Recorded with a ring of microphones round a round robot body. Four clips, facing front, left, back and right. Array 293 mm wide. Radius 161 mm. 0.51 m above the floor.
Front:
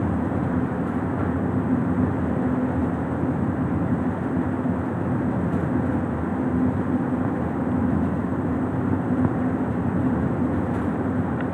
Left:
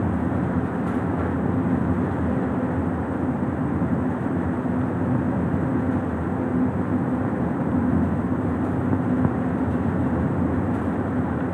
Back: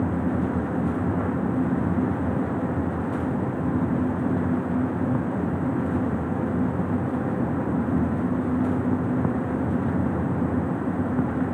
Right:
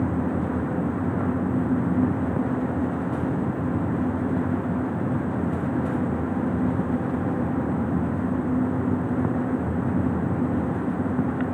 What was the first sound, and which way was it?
Only background noise.